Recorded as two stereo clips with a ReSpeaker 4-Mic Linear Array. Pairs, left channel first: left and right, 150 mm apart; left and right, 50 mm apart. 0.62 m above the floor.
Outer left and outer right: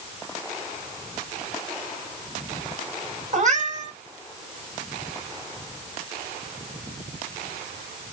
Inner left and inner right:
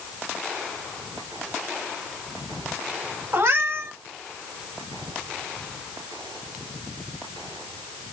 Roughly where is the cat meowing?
Right.